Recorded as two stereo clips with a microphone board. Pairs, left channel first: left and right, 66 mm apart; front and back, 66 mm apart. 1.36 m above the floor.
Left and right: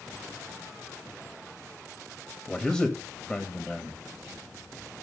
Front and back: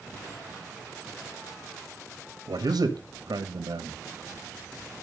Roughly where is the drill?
I don't hear a drill.